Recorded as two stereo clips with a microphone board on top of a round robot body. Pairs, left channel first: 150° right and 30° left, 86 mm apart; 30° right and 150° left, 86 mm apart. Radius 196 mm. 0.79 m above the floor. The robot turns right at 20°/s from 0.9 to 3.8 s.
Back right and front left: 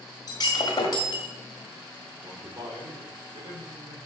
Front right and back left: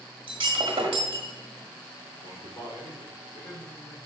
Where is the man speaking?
5° left, 3 m; by 4.0 s 35° left, 3 m.